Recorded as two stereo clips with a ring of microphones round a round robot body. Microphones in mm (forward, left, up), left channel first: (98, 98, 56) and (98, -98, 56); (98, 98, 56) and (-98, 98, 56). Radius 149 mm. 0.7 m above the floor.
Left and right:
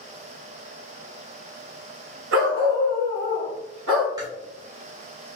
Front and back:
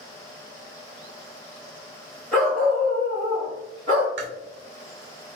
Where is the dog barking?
85° right, 1.1 m; by 4.1 s 105° right, 1.9 m.